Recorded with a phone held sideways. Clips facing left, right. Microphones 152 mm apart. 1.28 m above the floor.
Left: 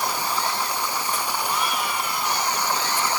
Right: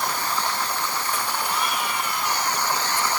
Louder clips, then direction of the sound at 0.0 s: Left 1 dB; 10° left (ahead or behind).